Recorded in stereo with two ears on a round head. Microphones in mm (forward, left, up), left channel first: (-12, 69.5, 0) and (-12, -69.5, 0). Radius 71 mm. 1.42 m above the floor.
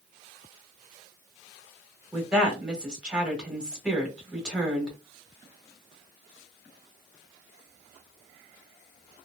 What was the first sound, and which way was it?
A woman speaking, 5° right (ahead or behind).